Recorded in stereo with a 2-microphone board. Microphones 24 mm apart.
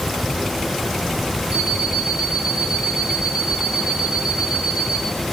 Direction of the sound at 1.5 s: 35° right (ahead or behind).